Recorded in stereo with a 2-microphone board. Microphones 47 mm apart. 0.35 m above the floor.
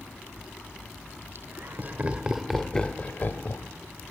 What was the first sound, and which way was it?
Laughter, 50° right (ahead or behind).